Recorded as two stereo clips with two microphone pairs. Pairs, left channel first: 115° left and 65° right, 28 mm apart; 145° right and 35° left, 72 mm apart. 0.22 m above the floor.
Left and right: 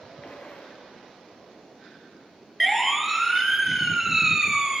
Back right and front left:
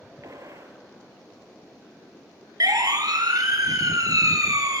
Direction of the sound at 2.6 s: 25° left.